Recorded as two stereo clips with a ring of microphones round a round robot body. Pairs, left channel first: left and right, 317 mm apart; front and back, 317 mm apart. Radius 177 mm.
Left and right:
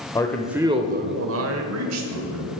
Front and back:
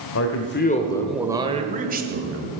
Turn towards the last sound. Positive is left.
turn(degrees=-125)